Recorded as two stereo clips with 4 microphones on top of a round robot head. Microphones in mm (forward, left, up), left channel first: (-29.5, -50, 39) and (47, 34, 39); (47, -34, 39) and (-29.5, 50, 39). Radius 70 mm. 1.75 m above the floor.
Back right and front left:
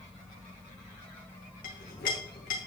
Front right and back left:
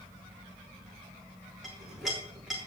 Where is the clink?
140° right, 2.5 m.